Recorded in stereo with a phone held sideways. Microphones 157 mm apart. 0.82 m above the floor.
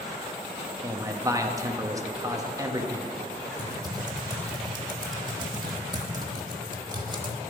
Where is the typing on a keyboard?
25° right (ahead or behind), 1.1 m.